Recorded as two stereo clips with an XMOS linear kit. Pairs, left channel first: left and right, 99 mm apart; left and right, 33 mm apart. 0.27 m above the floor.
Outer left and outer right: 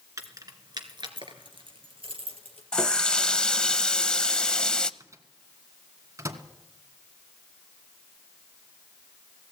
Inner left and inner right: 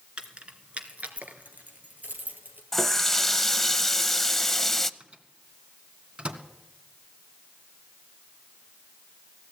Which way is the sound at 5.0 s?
35° right (ahead or behind).